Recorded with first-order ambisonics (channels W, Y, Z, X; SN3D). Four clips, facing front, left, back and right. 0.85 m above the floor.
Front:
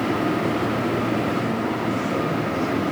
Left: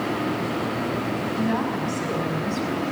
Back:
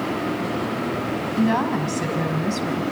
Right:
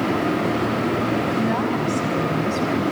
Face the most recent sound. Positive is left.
turn(degrees=-175)